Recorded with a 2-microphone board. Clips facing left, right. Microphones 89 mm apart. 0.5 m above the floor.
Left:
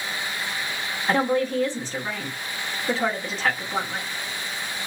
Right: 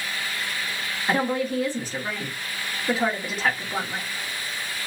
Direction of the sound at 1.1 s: 10° right (ahead or behind).